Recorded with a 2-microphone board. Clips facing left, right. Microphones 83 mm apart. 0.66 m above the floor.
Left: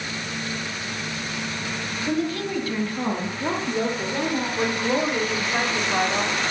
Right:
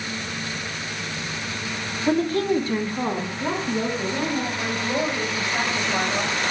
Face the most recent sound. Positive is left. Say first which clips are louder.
# left 2 dB
turn(degrees=45)  # may be behind; listen again after turning